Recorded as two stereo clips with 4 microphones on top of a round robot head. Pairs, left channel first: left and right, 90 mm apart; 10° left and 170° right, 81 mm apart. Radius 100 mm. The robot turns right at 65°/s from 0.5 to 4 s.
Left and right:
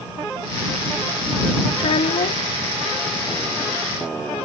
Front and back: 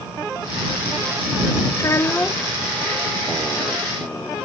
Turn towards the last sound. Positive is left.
turn(degrees=-160)